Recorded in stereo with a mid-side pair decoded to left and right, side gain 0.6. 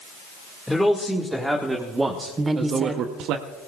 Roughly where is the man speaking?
Ahead.